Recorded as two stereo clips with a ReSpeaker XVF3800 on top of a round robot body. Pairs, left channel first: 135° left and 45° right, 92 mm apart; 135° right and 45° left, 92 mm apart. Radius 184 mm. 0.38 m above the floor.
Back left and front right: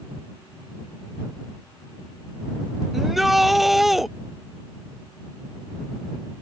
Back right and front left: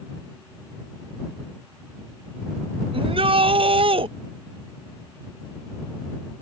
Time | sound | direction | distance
2.9 | a shout | 40° left | ?